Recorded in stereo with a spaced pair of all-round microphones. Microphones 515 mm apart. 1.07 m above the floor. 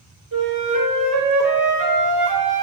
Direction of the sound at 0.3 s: 35° right (ahead or behind).